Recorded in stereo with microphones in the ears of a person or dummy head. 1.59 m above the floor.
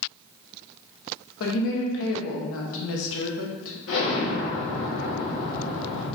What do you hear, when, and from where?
1.4 s a woman speaking: 75° left (ahead or behind), 1.4 m
3.9 s an explosion: 75° left (ahead or behind), 2 m